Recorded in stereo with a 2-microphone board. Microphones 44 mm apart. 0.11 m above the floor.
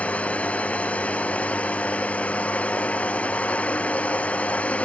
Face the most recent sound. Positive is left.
turn(degrees=30)  # may be behind; listen again after turning